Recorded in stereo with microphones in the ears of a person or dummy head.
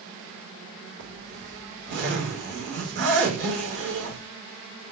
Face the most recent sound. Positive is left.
turn(degrees=-55)  # may be behind; listen again after turning